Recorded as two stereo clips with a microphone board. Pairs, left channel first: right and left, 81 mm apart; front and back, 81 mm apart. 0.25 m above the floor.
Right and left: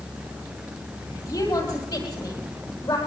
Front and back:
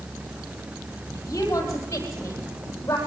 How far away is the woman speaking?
About 9 m.